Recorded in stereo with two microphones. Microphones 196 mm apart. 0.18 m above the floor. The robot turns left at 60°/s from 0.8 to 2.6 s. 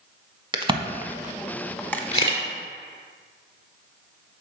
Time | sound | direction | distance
0.5 | a crack | 25° right (ahead or behind) | 0.6 m
2.1 | a camera shutter | 35° left (ahead or behind) | 1.3 m